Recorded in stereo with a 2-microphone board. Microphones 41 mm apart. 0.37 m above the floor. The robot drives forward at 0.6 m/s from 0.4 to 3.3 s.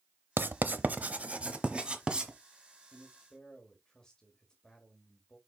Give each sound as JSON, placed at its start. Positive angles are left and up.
{"t": 0.4, "sound": "writing", "side_deg": -55, "distance_m": 0.7}
{"t": 2.9, "sound": "a man speaking", "side_deg": 20, "distance_m": 1.8}